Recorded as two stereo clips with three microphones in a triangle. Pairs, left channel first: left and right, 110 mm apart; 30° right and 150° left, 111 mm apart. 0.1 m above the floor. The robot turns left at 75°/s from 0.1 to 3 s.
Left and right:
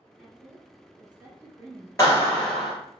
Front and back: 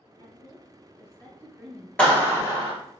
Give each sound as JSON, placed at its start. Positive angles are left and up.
{"t": 0.2, "sound": "a woman speaking", "azimuth_deg": -15, "distance_m": 1.8}
{"t": 2.0, "sound": "a clap", "azimuth_deg": 45, "distance_m": 1.6}